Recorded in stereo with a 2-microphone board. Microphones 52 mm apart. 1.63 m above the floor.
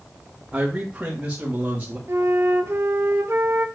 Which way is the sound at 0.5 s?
15° right (ahead or behind).